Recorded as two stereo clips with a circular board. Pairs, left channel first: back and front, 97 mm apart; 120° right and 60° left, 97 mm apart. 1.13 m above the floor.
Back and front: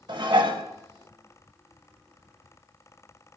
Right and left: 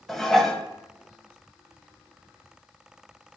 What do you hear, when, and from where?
0.1 s dishes clattering: 30° right, 0.8 m